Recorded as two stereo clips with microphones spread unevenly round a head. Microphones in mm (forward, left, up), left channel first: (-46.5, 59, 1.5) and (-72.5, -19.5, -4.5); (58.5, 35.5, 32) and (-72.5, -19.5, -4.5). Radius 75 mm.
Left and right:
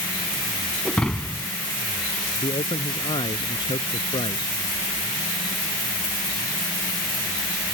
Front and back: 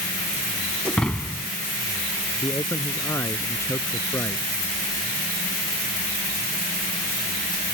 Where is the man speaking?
95° left.